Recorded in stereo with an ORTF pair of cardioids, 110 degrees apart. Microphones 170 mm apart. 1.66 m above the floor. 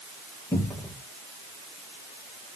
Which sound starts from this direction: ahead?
A cupboard door, at 0.5 s.